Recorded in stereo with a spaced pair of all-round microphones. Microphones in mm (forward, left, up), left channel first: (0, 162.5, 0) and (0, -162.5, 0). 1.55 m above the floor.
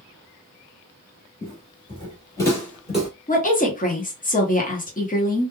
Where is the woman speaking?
25° left (ahead or behind), 0.9 m.